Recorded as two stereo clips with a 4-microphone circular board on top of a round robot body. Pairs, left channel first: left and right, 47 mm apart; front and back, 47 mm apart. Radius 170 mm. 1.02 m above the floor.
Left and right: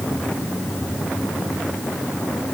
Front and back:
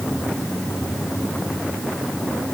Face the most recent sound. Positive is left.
No sound to turn to.